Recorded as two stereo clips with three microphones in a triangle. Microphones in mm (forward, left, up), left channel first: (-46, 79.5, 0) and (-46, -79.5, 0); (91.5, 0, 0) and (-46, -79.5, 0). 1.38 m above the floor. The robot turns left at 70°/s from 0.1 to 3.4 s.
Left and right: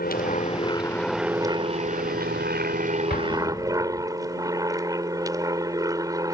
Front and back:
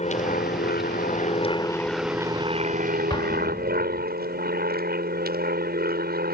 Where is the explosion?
90° left; by 4.1 s 70° left.